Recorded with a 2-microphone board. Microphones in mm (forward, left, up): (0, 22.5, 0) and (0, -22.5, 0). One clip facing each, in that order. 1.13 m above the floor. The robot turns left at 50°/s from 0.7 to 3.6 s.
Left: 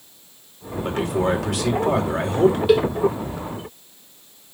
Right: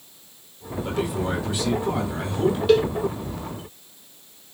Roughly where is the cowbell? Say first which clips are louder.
Right 2 dB; centre.